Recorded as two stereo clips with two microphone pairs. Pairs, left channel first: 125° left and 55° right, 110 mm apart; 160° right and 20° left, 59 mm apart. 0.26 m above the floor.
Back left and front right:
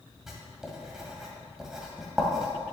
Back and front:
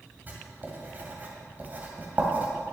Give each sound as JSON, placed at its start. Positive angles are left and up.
{"t": 0.3, "sound": "writing", "azimuth_deg": 30, "distance_m": 1.8}